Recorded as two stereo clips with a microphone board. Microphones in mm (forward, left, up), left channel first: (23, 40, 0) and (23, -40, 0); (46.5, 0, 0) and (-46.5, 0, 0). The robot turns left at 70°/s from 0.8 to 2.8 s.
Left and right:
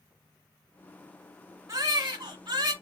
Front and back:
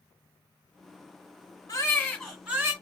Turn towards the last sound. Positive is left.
turn(degrees=-125)